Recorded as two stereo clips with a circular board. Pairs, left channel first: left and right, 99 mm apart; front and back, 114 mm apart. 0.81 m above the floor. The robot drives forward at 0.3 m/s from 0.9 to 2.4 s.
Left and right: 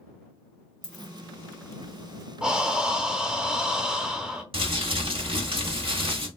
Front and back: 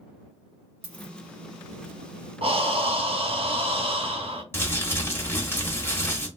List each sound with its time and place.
0.8 s a dropped coin: 170° left, 1.5 m
2.4 s breathing: 170° right, 0.6 m
4.5 s crumpling: 70° right, 1.2 m